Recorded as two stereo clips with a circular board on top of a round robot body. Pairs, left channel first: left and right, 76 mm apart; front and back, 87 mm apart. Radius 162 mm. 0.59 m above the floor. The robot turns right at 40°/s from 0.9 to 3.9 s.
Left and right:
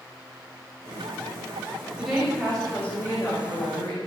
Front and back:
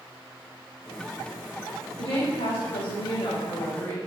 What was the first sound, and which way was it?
A woman speaking, 15° right.